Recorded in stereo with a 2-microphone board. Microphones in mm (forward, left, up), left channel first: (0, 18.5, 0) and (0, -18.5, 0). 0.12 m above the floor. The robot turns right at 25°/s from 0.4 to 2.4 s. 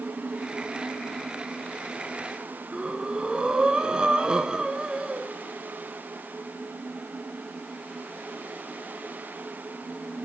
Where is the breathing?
25° right (ahead or behind), 0.9 m.